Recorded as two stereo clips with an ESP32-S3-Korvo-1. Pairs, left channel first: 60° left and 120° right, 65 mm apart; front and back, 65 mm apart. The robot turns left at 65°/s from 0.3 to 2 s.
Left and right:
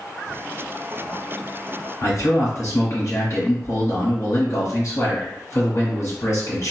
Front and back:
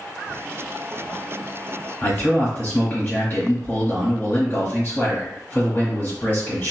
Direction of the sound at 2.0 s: 50° left.